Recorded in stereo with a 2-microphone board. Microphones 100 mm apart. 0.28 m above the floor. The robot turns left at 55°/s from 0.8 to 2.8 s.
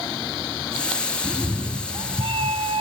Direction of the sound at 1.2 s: 15° right.